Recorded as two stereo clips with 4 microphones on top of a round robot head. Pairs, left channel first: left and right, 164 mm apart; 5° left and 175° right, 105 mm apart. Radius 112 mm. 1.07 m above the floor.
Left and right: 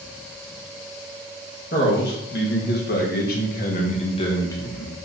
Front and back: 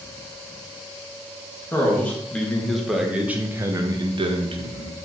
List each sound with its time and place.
1.7 s a man speaking: 75° left, 1.5 m; by 5.0 s 175° left, 1.0 m